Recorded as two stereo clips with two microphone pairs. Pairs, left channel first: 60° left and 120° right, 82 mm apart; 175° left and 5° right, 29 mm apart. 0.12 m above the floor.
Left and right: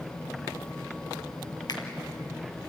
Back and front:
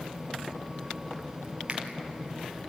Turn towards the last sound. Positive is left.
turn(degrees=40)